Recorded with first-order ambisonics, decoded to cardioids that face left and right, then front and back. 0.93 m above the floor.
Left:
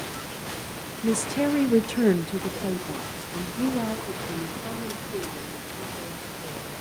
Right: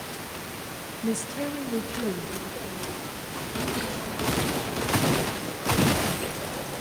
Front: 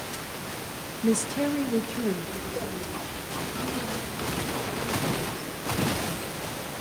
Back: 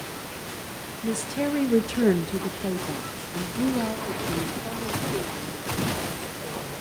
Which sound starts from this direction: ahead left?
A woman speaking, at 1.0 s.